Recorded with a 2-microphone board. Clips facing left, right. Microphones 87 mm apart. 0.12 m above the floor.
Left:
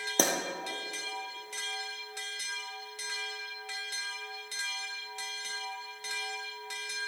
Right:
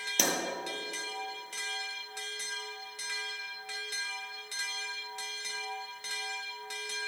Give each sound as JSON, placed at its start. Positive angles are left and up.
{"t": 0.2, "sound": "a pop", "side_deg": 40, "distance_m": 1.2}